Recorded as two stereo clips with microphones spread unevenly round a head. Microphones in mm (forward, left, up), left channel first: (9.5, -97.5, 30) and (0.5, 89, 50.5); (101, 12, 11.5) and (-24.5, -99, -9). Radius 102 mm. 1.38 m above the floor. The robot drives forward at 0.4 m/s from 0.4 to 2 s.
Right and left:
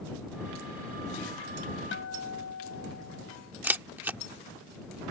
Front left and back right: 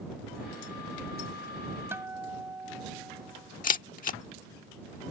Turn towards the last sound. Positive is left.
turn(degrees=15)